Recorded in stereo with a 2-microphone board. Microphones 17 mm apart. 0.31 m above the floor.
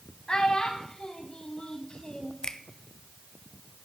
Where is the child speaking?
50° left (ahead or behind), 1.3 m.